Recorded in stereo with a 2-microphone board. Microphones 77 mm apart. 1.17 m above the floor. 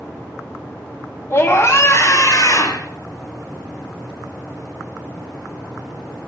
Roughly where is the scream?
Left.